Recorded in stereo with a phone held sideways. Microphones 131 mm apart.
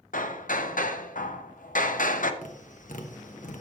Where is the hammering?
80° left, 0.6 m.